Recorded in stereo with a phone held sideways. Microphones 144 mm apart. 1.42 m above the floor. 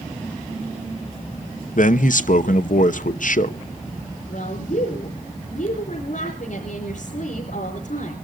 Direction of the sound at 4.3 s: 65° left (ahead or behind).